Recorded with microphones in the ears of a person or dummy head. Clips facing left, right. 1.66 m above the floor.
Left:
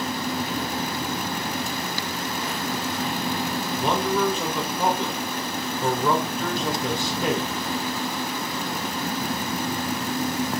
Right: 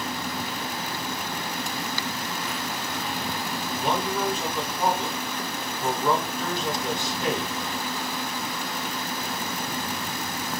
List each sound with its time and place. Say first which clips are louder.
3.8 s a man speaking: left 4 dB; 70° left (ahead or behind), 1.0 m